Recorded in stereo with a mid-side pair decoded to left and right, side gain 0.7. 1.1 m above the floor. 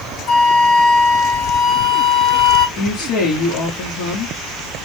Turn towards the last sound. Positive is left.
turn(degrees=65)